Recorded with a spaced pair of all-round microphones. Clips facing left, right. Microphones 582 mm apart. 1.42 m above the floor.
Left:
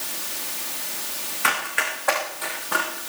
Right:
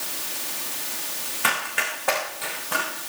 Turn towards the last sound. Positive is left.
turn(degrees=-50)  # may be behind; listen again after turning